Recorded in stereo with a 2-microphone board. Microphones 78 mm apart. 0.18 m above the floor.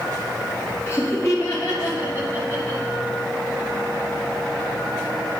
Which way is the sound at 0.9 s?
35° left (ahead or behind).